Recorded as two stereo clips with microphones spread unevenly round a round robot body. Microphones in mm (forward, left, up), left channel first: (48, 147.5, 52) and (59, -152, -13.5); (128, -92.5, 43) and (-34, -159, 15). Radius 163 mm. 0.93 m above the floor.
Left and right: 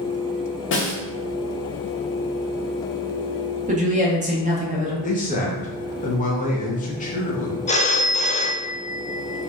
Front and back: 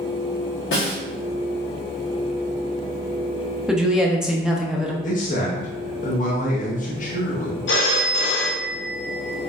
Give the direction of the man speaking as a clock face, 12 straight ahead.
11 o'clock.